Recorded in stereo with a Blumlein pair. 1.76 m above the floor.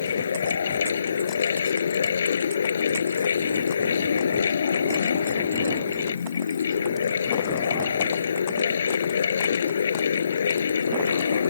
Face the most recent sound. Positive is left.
turn(degrees=70)